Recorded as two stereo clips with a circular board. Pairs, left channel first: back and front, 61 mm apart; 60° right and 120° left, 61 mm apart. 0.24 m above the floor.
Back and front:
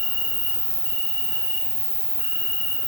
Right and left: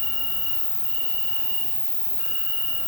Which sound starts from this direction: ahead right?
An insect, at 0.0 s.